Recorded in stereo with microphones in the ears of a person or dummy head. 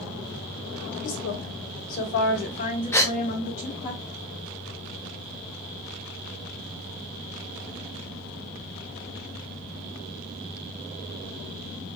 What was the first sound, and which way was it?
A woman speaking, 65° left (ahead or behind).